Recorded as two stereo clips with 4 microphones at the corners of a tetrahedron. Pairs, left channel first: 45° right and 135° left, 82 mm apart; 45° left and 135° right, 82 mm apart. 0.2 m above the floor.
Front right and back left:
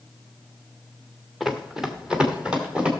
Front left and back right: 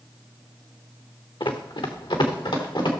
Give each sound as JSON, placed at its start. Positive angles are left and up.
{"t": 1.4, "sound": "running footsteps", "azimuth_deg": 45, "distance_m": 1.3}